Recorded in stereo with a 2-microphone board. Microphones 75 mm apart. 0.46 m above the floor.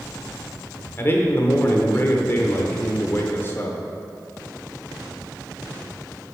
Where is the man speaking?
30° left (ahead or behind), 1.0 m.